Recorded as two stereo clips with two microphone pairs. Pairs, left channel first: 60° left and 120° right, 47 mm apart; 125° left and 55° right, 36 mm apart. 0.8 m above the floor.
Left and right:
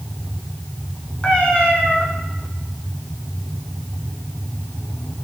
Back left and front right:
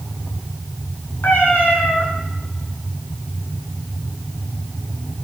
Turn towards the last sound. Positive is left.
turn(degrees=130)